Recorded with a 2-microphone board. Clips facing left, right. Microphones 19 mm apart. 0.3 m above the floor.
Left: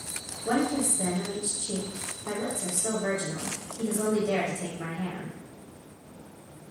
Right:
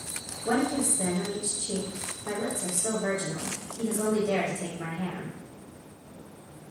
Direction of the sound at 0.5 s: Centre (ahead or behind).